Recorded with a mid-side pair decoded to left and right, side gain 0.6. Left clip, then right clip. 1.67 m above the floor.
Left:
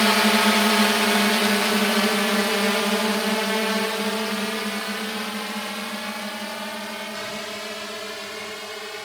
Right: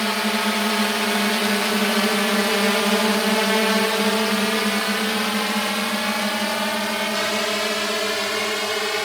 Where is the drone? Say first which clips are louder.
Left 4 dB; 25° left; by 9.1 s 50° right.